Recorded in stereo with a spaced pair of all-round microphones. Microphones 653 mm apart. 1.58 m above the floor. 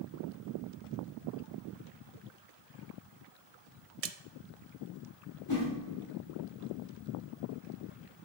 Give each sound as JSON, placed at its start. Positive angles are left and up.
{"t": 4.0, "sound": "a splash", "side_deg": -60, "distance_m": 0.6}
{"t": 5.5, "sound": "a whoosh", "side_deg": 40, "distance_m": 2.5}